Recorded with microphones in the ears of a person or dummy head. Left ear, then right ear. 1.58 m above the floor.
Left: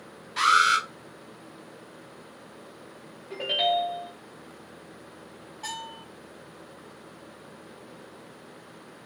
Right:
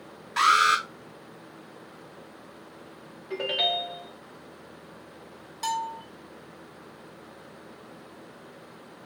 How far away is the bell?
About 1.4 m.